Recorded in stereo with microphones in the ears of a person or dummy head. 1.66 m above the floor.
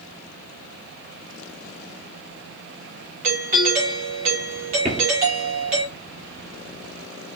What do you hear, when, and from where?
3.2 s a doorbell: 35° right (ahead or behind), 0.8 m
4.8 s footsteps: 30° right (ahead or behind), 1.9 m